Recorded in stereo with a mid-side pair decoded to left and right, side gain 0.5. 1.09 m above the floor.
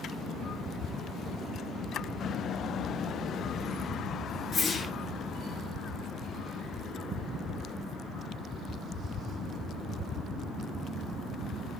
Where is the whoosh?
40° left, 7.5 m.